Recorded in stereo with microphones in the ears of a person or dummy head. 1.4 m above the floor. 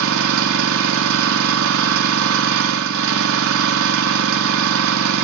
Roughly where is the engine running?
Right.